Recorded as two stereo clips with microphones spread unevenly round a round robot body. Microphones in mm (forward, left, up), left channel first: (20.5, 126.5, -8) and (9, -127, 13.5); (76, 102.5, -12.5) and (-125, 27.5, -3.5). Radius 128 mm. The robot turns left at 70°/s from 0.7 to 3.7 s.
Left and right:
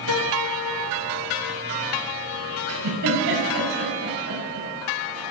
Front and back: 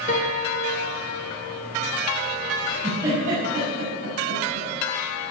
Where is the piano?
75° left, 1.7 m; by 1.7 s 5° left, 1.7 m.